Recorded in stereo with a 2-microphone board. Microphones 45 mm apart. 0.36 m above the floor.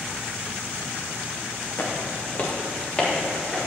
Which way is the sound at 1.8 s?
45° left (ahead or behind).